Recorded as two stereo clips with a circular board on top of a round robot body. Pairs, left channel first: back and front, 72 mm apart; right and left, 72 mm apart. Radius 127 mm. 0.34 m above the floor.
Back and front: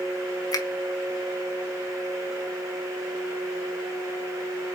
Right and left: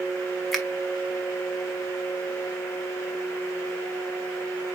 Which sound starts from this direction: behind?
A finger snap, at 0.5 s.